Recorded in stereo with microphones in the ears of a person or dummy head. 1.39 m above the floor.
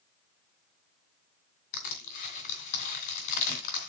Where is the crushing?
45° left (ahead or behind), 2 m.